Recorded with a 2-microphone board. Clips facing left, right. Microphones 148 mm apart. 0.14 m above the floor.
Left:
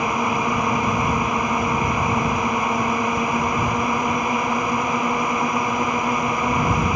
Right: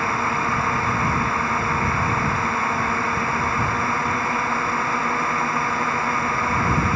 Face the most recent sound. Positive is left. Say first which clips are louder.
# left 2 dB
turn(degrees=15)  # may be behind; listen again after turning